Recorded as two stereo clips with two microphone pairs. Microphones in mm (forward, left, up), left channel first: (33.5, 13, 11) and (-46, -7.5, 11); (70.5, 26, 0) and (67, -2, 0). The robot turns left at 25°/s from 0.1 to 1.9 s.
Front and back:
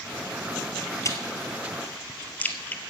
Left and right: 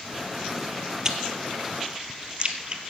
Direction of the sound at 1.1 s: 30° right.